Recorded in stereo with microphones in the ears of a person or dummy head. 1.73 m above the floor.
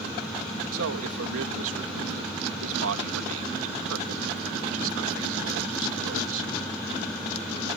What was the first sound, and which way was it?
A man speaking, 75° right (ahead or behind).